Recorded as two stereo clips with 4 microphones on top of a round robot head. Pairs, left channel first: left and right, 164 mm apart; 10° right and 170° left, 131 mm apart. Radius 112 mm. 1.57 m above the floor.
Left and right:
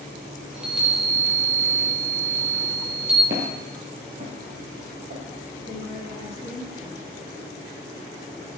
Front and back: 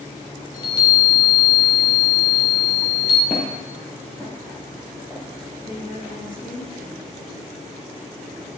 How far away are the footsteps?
About 2 m.